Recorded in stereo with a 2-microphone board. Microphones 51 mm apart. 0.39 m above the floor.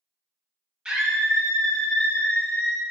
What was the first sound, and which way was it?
A scream, 15° right (ahead or behind).